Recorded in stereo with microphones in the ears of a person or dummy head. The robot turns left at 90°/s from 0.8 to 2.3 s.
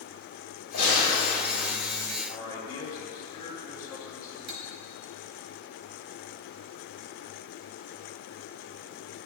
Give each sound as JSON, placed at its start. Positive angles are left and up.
{"t": 0.7, "sound": "a gunshot", "azimuth_deg": 85, "distance_m": 3.0}
{"t": 2.3, "sound": "a man speaking", "side_deg": 20, "distance_m": 1.7}
{"t": 4.5, "sound": "cutlery clinking", "side_deg": -60, "distance_m": 0.9}